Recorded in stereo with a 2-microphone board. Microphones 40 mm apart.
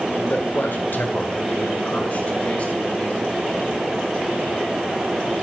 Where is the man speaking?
50° left (ahead or behind), 1.5 m; by 3.3 s 30° left (ahead or behind), 3 m.